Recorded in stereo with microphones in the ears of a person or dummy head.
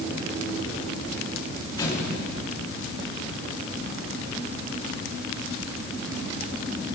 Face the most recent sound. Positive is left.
turn(degrees=20)  # may be behind; listen again after turning